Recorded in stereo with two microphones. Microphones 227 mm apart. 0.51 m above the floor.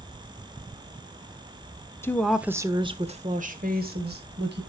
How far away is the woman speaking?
About 0.9 m.